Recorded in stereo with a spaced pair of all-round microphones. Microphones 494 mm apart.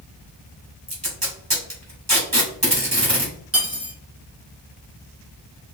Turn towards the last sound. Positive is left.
turn(degrees=-30)  # may be behind; listen again after turning